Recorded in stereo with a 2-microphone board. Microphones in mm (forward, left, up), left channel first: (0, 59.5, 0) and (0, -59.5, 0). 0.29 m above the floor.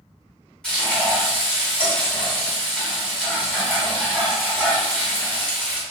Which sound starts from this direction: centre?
Frying, at 0.6 s.